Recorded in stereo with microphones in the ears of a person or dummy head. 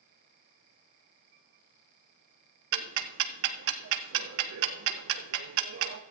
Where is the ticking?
65° right (ahead or behind), 0.8 m.